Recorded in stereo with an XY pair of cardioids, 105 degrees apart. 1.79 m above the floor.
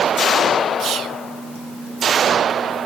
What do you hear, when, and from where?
0.8 s whispering: 65° right, 0.8 m